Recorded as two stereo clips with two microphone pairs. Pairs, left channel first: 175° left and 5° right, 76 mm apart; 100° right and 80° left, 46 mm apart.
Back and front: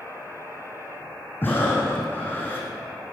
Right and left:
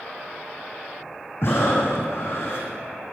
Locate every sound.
1.4 s breathing: 125° right, 5.5 m